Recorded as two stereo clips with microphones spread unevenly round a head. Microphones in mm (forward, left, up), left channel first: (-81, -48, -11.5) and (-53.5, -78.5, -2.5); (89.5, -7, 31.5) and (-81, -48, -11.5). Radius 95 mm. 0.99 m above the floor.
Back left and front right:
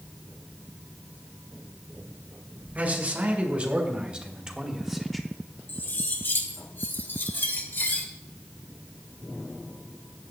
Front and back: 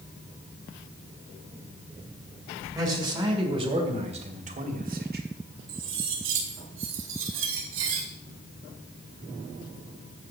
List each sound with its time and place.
2.8 s a man speaking: 95° right, 4 m; by 5.2 s 140° right, 2 m
5.7 s cutlery clinking: 170° left, 2 m